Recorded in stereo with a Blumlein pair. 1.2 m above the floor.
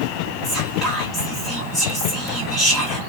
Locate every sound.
0.4 s whispering: 15° left, 1.1 m